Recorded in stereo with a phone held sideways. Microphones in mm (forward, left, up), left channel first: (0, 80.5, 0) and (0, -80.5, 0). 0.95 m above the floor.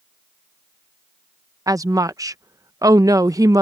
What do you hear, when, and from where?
1.7 s a woman speaking: 20° right (ahead or behind)